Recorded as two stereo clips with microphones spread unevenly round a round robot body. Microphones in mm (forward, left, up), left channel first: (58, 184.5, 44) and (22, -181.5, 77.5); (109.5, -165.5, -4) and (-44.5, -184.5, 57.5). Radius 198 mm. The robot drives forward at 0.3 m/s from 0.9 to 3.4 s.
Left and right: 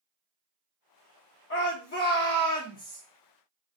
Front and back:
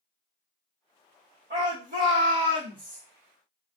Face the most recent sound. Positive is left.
turn(degrees=150)